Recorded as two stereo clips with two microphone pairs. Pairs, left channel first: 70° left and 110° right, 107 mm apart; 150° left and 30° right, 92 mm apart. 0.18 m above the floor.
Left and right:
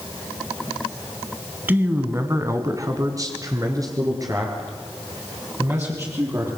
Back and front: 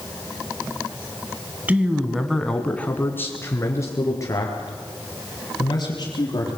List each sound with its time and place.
1.7 s a man speaking: 70° right, 1.7 m; by 6.5 s 165° right, 6 m